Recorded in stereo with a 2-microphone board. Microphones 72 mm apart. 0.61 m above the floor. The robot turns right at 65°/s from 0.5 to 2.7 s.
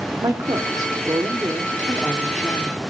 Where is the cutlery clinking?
I don't hear cutlery clinking.